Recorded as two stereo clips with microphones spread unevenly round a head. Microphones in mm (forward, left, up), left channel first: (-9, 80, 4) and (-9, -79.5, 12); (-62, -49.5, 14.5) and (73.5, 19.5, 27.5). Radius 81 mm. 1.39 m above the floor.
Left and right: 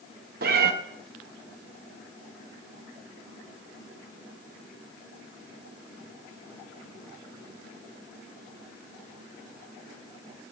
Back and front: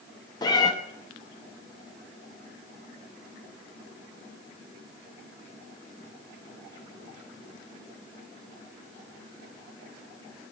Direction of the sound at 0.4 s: 90° right.